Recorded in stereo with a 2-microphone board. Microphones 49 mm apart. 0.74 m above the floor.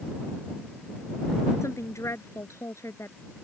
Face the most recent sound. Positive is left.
turn(degrees=80)